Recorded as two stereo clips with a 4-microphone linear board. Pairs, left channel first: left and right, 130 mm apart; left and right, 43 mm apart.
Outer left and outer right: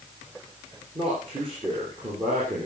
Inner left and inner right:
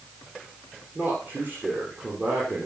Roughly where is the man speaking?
Right.